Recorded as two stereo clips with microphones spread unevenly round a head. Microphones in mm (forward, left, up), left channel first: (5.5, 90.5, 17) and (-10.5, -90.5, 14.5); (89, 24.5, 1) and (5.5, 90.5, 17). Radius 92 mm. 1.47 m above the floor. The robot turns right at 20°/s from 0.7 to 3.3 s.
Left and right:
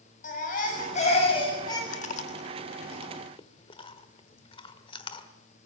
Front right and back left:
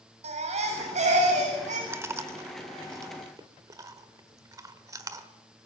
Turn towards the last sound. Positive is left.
turn(degrees=130)